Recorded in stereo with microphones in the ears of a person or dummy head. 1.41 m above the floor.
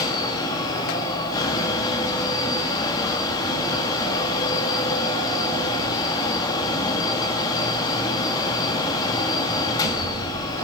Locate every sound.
0.0 s a fan: 20° left (ahead or behind), 1.9 m